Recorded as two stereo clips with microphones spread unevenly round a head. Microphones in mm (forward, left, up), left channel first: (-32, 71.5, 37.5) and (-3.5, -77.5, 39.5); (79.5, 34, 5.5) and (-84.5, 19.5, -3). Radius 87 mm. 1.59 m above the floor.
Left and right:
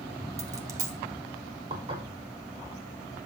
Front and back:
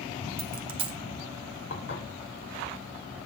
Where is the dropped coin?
135° right, 1.5 m.